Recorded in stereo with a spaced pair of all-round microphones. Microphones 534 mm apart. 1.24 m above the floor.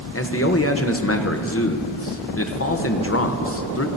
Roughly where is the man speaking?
Left.